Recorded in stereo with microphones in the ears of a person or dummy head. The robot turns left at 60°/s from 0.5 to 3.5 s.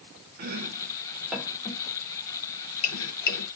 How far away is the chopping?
About 1.5 m.